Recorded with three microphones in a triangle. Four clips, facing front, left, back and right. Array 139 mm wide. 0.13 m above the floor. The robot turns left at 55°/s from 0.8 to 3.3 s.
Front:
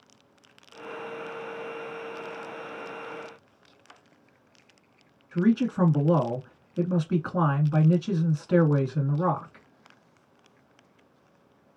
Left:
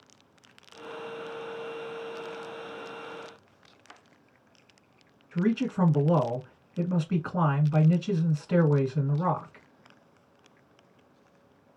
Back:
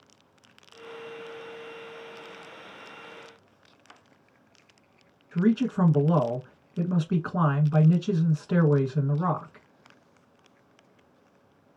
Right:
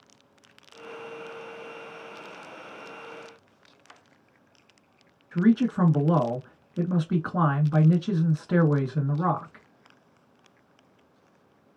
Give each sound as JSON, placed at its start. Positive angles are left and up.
{"t": 5.3, "sound": "a man speaking", "azimuth_deg": -95, "distance_m": 1.1}